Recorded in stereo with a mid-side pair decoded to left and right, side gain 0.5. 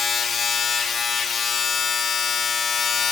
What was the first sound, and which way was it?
A machine running, 45° left.